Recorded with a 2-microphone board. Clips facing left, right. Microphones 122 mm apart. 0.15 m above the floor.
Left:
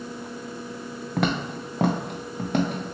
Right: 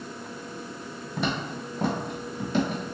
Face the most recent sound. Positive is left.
turn(degrees=55)  # may be behind; listen again after turning